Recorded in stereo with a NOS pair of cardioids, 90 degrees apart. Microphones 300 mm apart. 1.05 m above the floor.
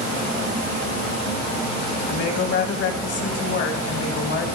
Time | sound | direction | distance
2.1 | a woman speaking | 55° left | 1.4 m